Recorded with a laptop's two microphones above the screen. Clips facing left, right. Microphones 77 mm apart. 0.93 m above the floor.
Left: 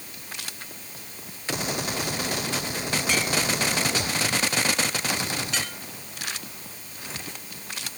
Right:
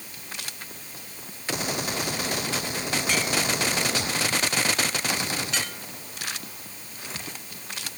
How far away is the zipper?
No zipper in this recording.